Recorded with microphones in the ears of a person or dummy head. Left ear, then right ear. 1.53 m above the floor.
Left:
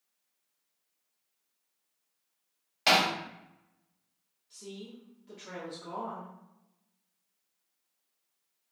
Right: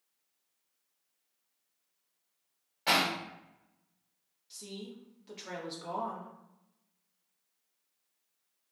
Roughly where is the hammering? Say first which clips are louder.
Left 4 dB; left.